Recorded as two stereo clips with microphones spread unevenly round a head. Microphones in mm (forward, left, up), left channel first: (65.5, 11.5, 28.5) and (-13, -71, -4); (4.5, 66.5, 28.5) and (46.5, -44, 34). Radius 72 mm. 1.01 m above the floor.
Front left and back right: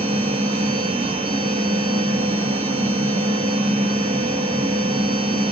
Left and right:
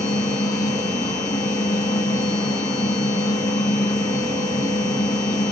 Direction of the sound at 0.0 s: Straight behind.